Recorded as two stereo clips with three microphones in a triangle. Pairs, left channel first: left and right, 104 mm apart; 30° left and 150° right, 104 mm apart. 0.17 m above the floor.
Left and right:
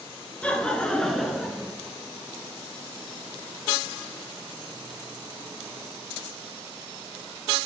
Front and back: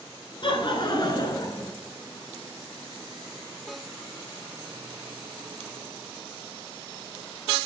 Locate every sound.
0.4 s laughter: 15° left, 1.8 m; by 1.7 s 5° right, 1.5 m